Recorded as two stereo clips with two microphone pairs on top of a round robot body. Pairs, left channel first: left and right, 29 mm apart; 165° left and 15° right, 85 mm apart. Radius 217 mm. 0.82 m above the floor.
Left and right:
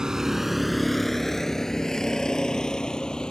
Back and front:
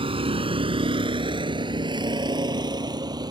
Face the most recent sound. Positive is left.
turn(degrees=25)